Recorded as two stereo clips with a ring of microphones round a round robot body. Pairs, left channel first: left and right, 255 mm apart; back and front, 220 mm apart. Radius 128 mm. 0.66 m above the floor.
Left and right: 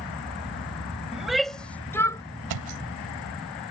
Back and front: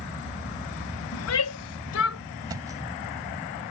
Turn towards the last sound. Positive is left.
turn(degrees=-75)